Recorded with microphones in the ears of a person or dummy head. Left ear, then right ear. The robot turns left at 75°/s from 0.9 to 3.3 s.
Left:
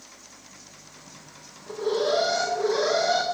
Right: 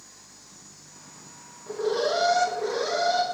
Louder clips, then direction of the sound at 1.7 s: Left 1 dB; 90° right.